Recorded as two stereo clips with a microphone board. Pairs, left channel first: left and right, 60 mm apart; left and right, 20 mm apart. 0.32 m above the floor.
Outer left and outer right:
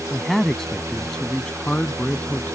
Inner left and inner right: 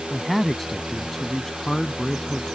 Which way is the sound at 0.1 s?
Centre (ahead or behind).